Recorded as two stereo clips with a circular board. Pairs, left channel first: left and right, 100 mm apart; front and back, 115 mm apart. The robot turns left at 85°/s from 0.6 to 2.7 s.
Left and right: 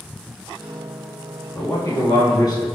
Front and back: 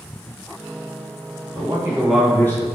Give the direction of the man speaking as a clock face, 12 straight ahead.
7 o'clock.